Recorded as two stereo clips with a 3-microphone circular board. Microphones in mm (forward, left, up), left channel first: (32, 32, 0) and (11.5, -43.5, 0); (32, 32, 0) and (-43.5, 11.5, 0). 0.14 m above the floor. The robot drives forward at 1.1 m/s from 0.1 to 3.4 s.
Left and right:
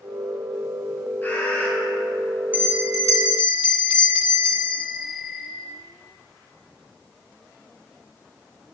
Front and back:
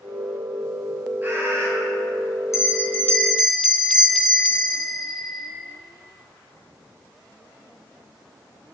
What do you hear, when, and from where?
1.2 s a bird: 135° left, 2.5 m; by 1.7 s 145° left, 2.5 m
2.5 s a bell: 40° right, 1.7 m; by 5.5 s 70° right, 1.1 m